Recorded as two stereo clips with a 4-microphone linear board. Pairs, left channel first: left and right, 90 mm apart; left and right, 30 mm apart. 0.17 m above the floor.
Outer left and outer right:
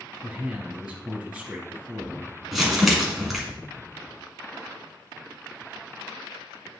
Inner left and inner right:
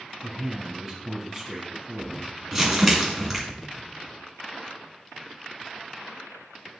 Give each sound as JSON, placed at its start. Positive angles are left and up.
{"t": 0.2, "sound": "a man speaking", "side_deg": -10, "distance_m": 3.0}
{"t": 2.5, "sound": "crumpling", "side_deg": 0, "distance_m": 2.0}